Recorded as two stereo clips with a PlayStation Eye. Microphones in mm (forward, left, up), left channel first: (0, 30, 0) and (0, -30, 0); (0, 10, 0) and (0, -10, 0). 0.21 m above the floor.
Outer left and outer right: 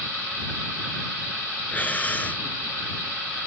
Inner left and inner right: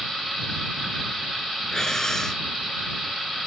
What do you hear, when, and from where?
1.7 s breathing: 25° left (ahead or behind)